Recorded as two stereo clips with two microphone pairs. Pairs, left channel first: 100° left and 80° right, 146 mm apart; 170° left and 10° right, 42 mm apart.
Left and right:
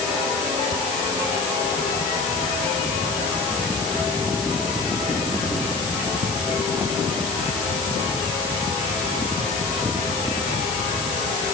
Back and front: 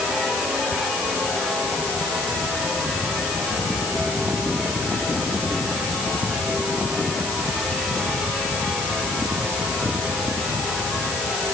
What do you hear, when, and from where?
Only background noise.